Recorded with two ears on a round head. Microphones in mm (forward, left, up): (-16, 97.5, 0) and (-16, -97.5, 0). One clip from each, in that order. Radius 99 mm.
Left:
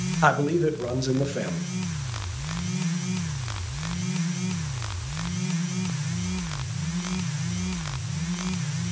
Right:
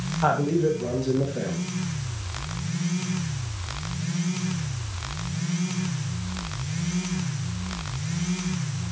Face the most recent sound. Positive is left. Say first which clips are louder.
# left 1 dB
turn(degrees=50)  # may be behind; listen again after turning